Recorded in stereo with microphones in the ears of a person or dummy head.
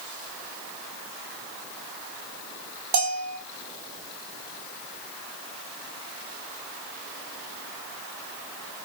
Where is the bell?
55° right (ahead or behind), 0.9 m.